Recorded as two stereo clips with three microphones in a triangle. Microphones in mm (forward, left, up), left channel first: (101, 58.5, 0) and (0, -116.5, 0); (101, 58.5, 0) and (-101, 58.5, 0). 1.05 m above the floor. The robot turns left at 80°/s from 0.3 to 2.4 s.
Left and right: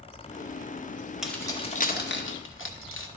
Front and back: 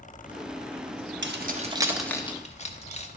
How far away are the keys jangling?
About 0.8 m.